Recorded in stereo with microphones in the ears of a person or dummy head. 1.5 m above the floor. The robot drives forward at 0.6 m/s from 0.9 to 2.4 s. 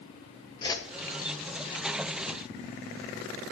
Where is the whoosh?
20° left (ahead or behind), 0.8 m.